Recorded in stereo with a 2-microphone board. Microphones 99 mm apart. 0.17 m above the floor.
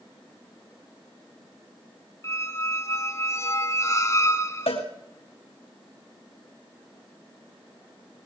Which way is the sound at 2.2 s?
30° left (ahead or behind).